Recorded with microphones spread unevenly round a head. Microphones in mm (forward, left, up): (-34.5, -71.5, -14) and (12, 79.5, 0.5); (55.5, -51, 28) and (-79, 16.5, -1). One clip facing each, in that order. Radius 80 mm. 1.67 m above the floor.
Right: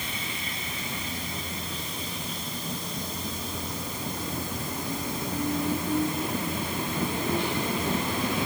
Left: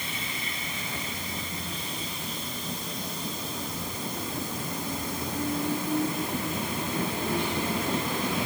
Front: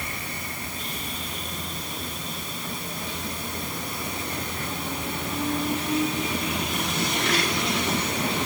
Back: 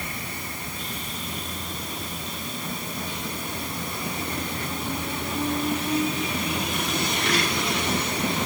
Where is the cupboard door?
I don't hear a cupboard door.